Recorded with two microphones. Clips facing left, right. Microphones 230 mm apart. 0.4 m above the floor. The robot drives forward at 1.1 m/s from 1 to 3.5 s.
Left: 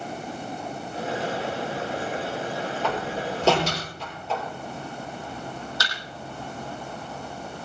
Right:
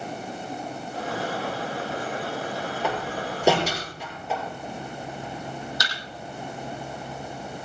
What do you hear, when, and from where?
2.8 s a door slam: 10° right (ahead or behind), 7.5 m; by 4.4 s 15° right (ahead or behind), 7 m
5.8 s a thud: 15° right (ahead or behind), 5.5 m